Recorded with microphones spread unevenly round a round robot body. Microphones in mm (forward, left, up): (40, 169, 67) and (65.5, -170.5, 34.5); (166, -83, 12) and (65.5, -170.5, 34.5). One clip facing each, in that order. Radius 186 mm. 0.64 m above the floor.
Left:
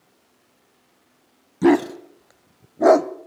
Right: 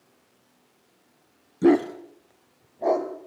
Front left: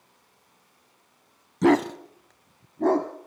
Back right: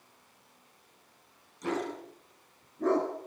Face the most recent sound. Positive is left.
turn(degrees=115)